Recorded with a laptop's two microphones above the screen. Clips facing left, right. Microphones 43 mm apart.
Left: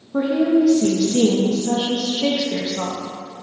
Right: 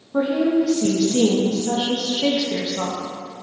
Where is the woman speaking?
Centre (ahead or behind), 1.0 m.